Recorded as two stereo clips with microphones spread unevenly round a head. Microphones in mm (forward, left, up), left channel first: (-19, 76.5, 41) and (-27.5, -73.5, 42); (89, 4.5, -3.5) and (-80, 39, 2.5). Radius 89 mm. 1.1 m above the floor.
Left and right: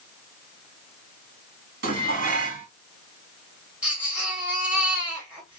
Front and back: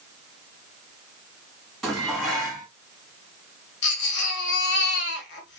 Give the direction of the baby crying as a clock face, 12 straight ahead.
12 o'clock.